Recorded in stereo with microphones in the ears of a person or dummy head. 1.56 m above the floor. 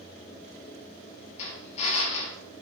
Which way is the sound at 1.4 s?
35° left (ahead or behind).